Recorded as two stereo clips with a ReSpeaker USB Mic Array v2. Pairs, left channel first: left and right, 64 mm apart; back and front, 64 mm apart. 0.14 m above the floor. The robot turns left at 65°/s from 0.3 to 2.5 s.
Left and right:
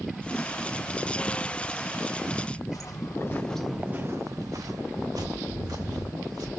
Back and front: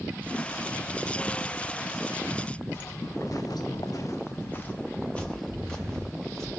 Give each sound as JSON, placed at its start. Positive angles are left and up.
{"t": 2.7, "sound": "footsteps", "azimuth_deg": 120, "distance_m": 0.9}